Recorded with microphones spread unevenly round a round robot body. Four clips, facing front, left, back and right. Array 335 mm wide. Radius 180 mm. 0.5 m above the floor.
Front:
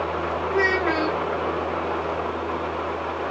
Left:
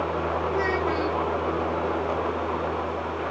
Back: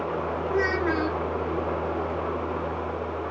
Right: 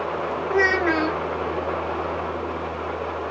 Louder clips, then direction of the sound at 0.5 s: Right 8 dB, front 3 dB; 75° right.